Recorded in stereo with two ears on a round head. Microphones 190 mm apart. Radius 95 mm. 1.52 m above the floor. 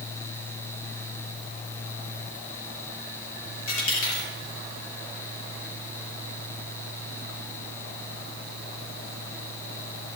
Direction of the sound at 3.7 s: 70° left (ahead or behind).